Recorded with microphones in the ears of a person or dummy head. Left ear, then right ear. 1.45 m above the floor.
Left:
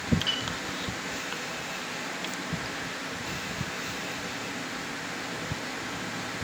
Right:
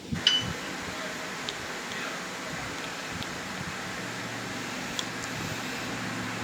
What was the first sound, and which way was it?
A piano, 50° right (ahead or behind).